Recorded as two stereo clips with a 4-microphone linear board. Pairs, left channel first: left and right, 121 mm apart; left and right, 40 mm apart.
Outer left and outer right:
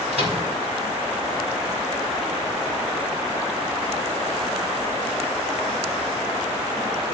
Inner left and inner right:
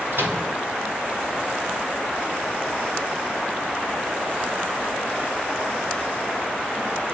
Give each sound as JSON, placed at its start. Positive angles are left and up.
{"t": 0.1, "sound": "a microwave", "side_deg": -65, "distance_m": 3.5}